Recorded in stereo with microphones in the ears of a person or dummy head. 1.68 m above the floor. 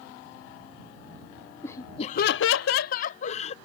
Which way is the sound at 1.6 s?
20° left (ahead or behind).